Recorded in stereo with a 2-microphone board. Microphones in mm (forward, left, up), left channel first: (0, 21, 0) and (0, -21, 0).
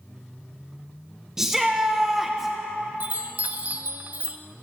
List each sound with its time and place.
1.4 s a shout: 10° right (ahead or behind), 0.6 m
3.0 s a chime: 35° right (ahead or behind), 0.5 m